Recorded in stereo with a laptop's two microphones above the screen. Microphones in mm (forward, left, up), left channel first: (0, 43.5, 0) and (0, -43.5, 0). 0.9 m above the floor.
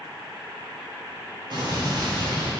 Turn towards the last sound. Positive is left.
turn(degrees=-60)  # may be behind; listen again after turning